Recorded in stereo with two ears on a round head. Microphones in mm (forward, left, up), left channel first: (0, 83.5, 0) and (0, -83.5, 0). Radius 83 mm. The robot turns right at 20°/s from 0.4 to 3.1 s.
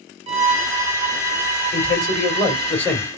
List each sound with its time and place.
0.3 s a violin: 140° right, 1.0 m; by 2.7 s 95° right, 1.0 m
1.7 s a man speaking: 30° left (ahead or behind), 3 m; by 3.1 s 5° left (ahead or behind), 3 m